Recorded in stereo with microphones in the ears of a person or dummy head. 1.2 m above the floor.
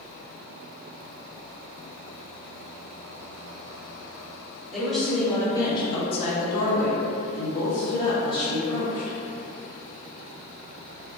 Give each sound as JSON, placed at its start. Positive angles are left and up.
{"t": 4.7, "sound": "a woman speaking", "side_deg": 0, "distance_m": 1.0}